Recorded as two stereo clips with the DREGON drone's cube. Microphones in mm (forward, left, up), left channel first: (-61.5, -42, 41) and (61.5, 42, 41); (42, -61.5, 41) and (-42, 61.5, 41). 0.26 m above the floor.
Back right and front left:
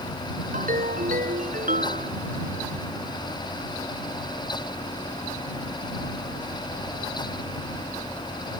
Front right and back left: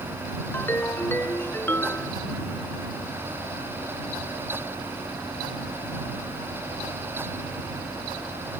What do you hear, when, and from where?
0.5 s a ringtone: 20° left